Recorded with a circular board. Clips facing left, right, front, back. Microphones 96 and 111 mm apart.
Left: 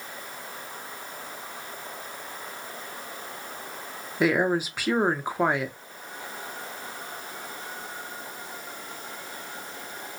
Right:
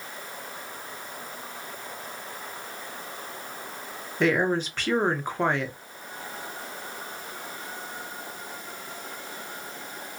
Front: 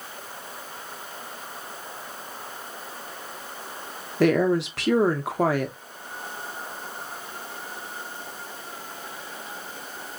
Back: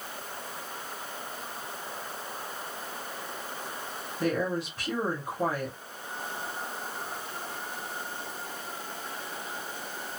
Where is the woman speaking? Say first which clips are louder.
Even, front 9 dB; 5° left, 0.7 m.